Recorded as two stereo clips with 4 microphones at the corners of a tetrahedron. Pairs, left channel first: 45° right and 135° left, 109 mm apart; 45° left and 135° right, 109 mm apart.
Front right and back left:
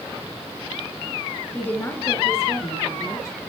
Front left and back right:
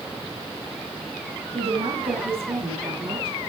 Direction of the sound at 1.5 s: 115° right.